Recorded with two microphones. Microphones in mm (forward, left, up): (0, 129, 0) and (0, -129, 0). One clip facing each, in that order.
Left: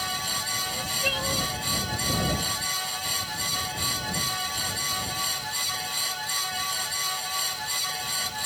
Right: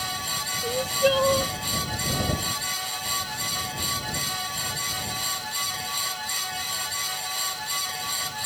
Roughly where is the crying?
Right.